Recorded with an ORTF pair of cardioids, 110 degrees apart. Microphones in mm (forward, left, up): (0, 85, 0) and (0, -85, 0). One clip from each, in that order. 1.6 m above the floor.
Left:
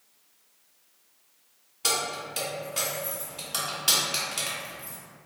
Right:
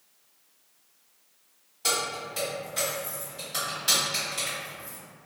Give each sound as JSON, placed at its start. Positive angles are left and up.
{"t": 1.8, "sound": "keys jangling", "azimuth_deg": 35, "distance_m": 1.6}